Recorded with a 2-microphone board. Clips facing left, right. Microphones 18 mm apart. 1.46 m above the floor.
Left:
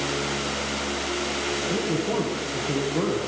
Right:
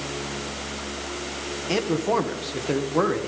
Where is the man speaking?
75° right (ahead or behind), 1.4 m.